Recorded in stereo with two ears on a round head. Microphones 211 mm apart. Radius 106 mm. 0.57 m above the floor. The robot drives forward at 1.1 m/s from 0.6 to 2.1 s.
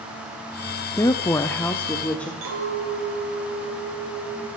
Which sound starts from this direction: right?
A clink, at 2.4 s.